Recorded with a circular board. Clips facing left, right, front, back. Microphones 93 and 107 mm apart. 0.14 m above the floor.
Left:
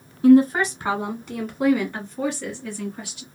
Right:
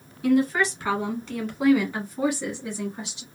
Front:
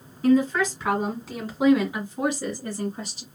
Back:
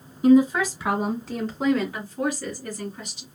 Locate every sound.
0.2 s a woman speaking: 125° left, 1.6 m; by 3.2 s 40° right, 1.9 m